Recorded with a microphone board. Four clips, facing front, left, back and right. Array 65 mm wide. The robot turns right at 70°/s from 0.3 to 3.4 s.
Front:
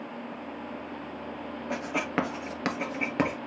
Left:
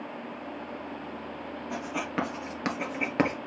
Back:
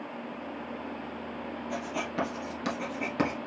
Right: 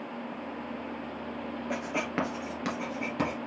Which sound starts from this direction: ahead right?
Writing, at 1.7 s.